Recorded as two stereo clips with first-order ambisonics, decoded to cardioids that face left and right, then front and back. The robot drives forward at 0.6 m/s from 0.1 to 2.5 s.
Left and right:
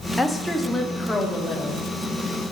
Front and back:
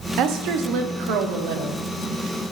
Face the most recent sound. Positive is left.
turn(degrees=180)